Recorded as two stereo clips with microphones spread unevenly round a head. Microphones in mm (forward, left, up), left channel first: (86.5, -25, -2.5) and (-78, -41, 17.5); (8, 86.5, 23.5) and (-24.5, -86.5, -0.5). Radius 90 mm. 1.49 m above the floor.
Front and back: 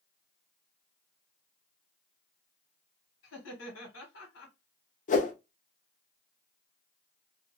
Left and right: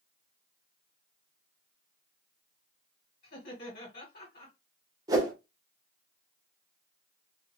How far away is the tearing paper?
No tearing paper in this recording.